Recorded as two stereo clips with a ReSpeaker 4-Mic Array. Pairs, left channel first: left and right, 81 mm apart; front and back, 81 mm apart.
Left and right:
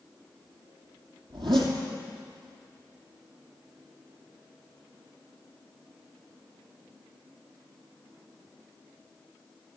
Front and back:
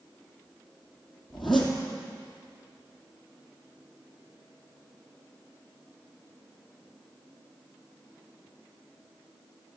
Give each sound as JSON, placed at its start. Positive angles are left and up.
{"t": 1.3, "sound": "a zipper", "azimuth_deg": -90, "distance_m": 3.0}